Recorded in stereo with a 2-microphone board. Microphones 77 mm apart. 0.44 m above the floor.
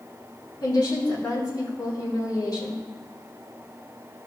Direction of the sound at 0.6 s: 60° left (ahead or behind).